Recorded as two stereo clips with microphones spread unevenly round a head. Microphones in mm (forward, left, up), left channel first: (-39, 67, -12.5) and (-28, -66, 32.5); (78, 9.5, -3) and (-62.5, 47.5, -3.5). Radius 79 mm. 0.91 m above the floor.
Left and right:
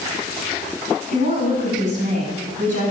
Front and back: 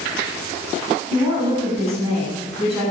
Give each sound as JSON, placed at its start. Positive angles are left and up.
{"t": 1.1, "sound": "a woman speaking", "azimuth_deg": -110, "distance_m": 8.5}